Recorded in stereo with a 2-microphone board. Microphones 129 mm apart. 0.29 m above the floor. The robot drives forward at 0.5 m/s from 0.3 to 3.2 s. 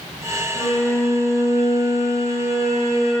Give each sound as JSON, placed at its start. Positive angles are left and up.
{"t": 0.6, "sound": "a violin", "side_deg": 55, "distance_m": 3.5}